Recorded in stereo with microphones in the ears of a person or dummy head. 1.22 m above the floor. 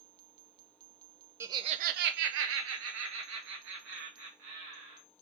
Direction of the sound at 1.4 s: 15° right (ahead or behind).